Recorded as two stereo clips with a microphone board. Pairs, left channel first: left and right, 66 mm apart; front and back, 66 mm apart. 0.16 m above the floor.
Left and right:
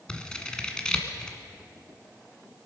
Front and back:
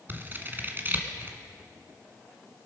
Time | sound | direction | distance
0.1 | scissors | 160° left | 1.6 m